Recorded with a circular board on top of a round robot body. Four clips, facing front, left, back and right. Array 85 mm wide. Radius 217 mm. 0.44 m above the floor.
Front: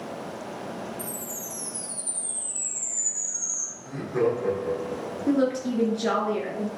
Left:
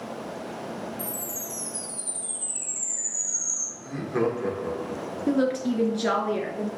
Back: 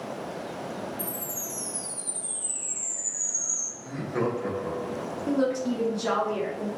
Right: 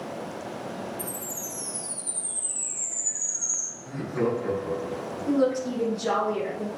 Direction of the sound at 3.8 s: 110° left.